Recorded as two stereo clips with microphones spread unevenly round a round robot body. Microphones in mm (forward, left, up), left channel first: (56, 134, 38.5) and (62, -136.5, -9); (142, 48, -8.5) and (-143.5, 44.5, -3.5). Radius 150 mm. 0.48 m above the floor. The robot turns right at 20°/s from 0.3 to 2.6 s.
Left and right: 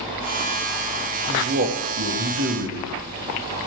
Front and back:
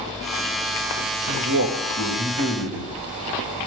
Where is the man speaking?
150° right, 1.8 m; by 2.9 s 120° right, 1.8 m.